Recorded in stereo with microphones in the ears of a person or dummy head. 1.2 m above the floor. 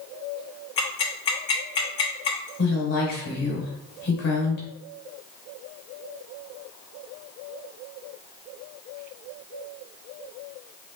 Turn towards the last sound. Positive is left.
turn(degrees=55)  # may be behind; listen again after turning